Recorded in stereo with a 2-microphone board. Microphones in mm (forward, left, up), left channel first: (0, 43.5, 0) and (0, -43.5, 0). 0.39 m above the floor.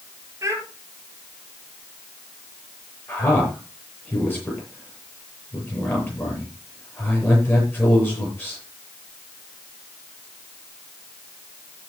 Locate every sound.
0.4 s a child speaking: 35° right (ahead or behind), 5.5 m
3.1 s a man speaking: 25° left (ahead or behind), 9 m